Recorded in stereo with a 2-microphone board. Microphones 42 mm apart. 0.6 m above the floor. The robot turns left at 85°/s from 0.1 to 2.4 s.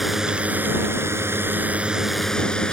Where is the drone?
5° right; by 2.7 s 160° left.